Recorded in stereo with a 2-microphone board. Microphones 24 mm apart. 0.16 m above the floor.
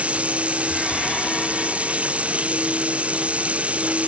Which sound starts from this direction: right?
Running water, at 0.0 s.